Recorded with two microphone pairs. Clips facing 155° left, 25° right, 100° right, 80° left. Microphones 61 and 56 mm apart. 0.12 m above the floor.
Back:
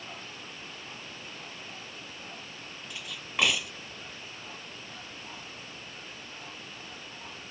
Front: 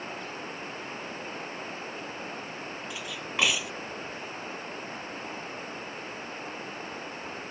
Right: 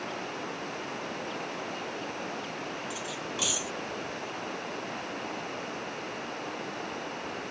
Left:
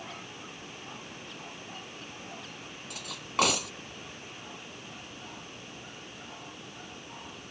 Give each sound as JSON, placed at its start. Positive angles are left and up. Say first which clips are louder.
{"t": 0.0, "sound": "running water", "louder": "front 6 dB, right 8 dB", "azimuth_deg": -75}
{"t": 2.9, "sound": "cutlery clinking", "louder": "even, left 1 dB", "azimuth_deg": 65}